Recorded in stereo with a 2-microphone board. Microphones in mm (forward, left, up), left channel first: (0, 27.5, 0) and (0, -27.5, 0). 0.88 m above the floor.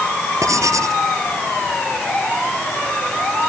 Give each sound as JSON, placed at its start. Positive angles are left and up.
{"t": 0.4, "sound": "writing", "side_deg": -75}